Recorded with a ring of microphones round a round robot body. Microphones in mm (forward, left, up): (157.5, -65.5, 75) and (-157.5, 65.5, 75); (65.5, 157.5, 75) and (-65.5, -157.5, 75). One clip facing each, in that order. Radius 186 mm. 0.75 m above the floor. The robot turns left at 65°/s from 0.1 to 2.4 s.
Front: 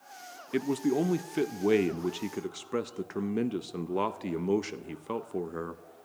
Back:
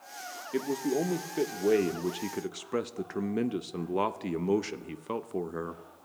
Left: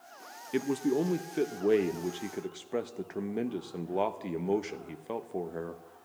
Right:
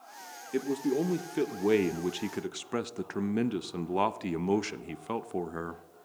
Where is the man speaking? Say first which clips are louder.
Front 2 dB, even; 10° left, 0.5 m; by 5.8 s 115° right, 0.5 m.